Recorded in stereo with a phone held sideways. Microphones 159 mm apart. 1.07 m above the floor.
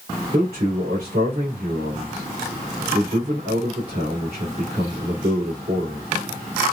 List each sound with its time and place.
0.3 s a man speaking: 80° right, 2.5 m